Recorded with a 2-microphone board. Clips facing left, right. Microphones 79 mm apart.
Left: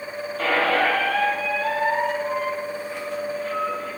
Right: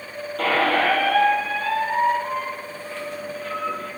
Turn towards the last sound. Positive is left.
turn(degrees=-60)  # may be behind; listen again after turning